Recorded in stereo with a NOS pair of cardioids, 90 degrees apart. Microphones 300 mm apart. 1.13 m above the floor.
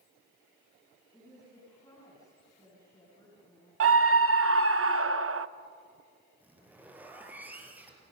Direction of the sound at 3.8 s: 50° right.